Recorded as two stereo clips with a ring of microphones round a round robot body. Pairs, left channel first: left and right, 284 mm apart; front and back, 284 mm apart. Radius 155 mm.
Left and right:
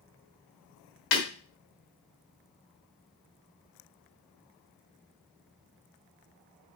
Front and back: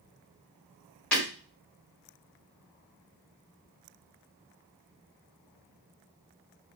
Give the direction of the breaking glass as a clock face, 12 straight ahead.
9 o'clock.